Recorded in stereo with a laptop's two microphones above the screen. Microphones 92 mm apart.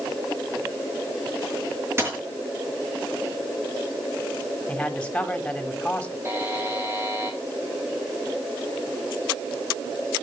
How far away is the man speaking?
About 2.5 m.